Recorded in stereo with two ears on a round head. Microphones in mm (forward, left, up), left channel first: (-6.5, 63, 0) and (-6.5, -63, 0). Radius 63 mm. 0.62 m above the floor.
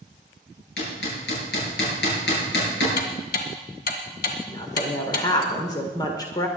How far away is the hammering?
About 6.5 m.